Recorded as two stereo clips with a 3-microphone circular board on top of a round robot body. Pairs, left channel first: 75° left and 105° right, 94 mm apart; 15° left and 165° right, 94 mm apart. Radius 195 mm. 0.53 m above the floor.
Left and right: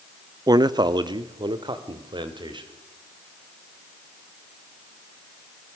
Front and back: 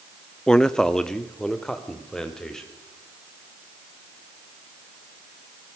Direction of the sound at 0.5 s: 65° right.